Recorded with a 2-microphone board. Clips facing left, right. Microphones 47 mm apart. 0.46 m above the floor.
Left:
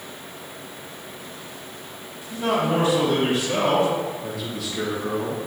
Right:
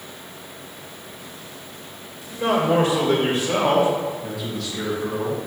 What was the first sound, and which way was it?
A man speaking, 60° right (ahead or behind).